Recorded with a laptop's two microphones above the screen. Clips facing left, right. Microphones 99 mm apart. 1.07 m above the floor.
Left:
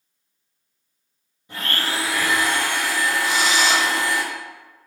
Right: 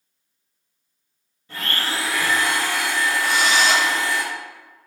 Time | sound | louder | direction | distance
1.5 | a blender | even | 15° left (ahead or behind) | 1.1 m
3.2 | a drill | right 2 dB | 55° right (ahead or behind) | 0.7 m